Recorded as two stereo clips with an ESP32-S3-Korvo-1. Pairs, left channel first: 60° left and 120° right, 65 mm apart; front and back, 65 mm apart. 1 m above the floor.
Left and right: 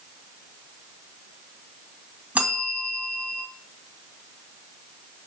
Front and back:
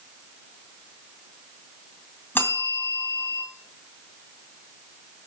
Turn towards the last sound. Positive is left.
turn(degrees=-55)